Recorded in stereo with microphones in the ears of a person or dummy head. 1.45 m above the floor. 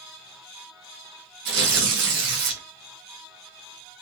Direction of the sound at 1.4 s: 70° right (ahead or behind).